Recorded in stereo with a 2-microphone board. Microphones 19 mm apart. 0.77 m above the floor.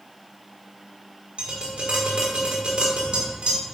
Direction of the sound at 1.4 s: 60° right (ahead or behind).